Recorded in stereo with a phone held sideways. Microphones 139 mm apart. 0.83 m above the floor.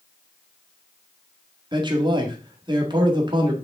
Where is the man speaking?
35° right (ahead or behind), 1.6 m.